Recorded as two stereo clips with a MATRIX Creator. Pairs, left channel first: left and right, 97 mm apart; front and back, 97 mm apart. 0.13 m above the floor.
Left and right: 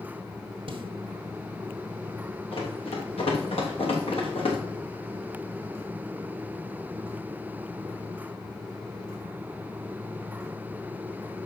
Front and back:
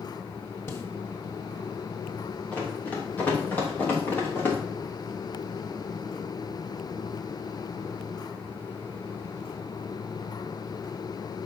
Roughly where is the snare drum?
Ahead right.